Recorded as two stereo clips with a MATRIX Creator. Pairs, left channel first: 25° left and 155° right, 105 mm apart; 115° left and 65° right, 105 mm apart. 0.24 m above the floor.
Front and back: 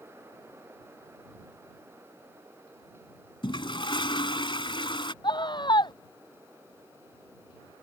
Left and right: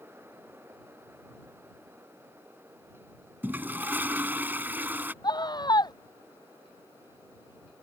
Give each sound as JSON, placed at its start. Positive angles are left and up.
{"t": 3.4, "sound": "a toilet flushing", "azimuth_deg": 0}
{"t": 5.2, "sound": "a scream", "azimuth_deg": 65}